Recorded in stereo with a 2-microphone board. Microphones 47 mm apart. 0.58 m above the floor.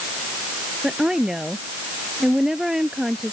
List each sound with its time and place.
0.8 s a woman speaking: 10° right (ahead or behind)